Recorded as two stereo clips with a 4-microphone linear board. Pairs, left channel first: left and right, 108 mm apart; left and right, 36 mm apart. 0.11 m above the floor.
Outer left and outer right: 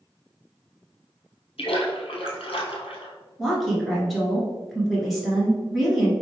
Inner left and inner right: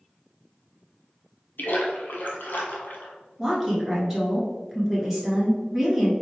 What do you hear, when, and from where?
1.6 s a splash: 65° left (ahead or behind), 0.9 m
3.4 s a woman speaking: centre (ahead or behind), 1.2 m